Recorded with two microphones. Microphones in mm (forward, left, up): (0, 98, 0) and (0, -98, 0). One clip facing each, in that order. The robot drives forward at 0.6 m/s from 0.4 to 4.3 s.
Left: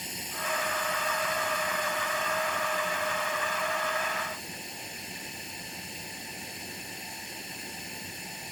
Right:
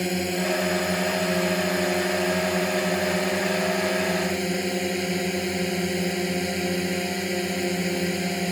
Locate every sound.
0.0 s a drone: 70° right (ahead or behind); by 8.5 s 80° right